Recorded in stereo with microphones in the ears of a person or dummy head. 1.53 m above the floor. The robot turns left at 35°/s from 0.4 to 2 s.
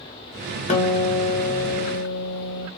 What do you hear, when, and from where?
0.7 s a guitar: 140° left, 0.9 m; by 2.7 s 95° left, 0.9 m